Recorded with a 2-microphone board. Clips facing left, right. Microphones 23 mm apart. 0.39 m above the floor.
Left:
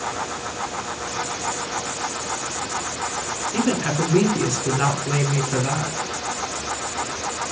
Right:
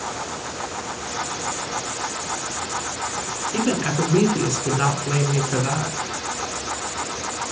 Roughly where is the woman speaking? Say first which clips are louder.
Even; right.